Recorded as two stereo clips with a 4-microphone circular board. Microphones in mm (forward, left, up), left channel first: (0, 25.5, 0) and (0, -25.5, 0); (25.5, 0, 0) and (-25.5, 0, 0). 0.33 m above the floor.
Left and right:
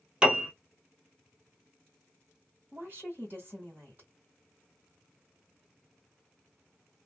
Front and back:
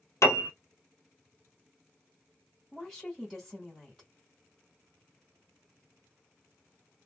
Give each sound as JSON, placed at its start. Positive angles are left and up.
{"t": 0.2, "sound": "a piano", "azimuth_deg": -20, "distance_m": 1.4}
{"t": 2.7, "sound": "a woman speaking", "azimuth_deg": -90, "distance_m": 1.6}